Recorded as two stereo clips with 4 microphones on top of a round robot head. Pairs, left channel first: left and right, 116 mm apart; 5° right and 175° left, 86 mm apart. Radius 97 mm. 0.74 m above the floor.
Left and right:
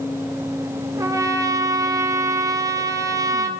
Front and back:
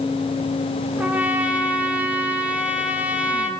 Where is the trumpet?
125° right, 0.8 m.